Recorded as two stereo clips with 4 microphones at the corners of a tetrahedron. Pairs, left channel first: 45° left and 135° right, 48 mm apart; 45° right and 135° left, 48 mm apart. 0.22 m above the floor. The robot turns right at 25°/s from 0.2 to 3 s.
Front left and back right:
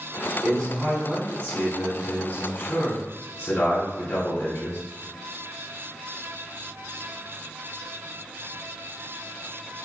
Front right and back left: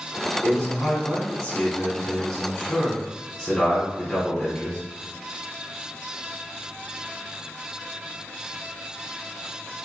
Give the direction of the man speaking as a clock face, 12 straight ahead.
12 o'clock.